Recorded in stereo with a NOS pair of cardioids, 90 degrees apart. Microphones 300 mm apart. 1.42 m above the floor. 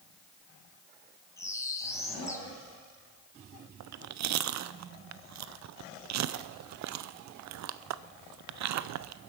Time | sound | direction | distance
1.4 | a bird | 10° left | 2.5 m
3.8 | chewing | 65° right | 0.7 m